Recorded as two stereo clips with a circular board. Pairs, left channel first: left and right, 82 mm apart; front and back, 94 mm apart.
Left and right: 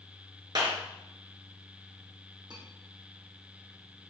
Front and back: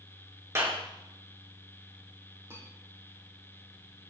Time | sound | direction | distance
0.6 | a clap | 120° right | 3.5 m
2.5 | cutlery clinking | 115° right | 6 m